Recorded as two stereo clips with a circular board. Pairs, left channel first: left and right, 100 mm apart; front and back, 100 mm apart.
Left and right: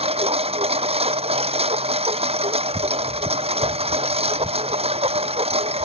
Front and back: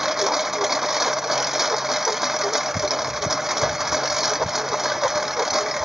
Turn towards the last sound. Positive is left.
turn(degrees=-90)